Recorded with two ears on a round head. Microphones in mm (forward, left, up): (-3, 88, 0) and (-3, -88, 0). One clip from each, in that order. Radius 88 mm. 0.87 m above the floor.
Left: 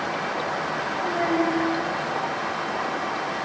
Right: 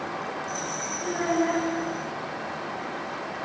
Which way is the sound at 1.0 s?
10° right (ahead or behind).